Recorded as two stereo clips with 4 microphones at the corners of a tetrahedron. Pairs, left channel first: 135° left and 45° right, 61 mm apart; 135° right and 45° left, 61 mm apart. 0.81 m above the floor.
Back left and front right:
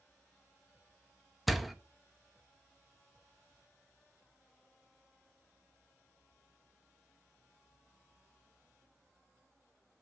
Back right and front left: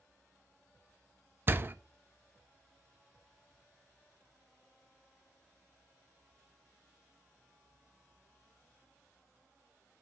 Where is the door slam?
40° left, 0.6 m.